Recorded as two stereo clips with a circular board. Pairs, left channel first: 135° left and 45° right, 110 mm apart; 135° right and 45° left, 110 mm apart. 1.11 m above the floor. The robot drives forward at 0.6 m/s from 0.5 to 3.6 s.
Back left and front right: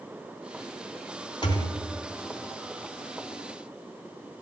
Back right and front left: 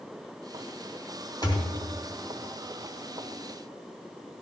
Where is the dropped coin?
No dropped coin in this recording.